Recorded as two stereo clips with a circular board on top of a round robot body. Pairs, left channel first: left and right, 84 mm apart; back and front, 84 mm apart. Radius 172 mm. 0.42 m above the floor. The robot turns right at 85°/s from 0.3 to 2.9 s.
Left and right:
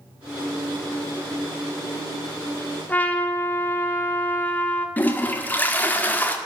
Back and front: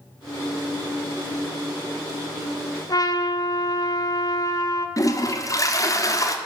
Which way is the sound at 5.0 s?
150° left.